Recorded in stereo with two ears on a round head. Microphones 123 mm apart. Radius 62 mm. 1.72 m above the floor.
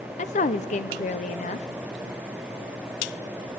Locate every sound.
0.2 s a woman speaking: 55° left (ahead or behind), 0.8 m